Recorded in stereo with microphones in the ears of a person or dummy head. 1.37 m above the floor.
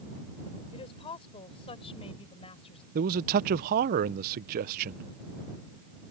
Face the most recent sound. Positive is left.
turn(degrees=-50)  # may be behind; listen again after turning